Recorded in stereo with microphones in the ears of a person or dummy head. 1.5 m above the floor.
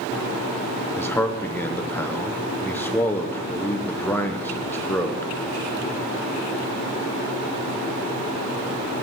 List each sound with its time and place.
1.0 s a man speaking: 10° left (ahead or behind), 1.0 m